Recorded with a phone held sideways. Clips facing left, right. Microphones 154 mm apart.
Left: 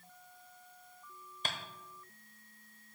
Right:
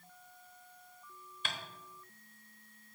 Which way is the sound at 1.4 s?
40° left (ahead or behind).